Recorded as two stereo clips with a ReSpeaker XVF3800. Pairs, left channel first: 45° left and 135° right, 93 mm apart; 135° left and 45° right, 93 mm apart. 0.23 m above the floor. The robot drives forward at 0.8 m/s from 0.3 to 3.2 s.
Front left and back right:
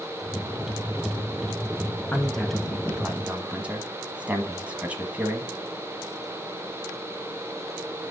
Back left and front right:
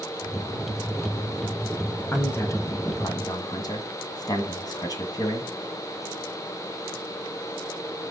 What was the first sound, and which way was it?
A man speaking, 100° left.